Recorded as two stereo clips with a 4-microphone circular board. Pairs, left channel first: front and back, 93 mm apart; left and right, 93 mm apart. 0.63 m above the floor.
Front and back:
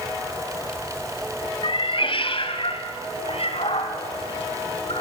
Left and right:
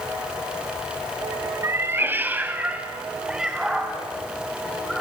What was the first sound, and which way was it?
A cat meowing, 30° right.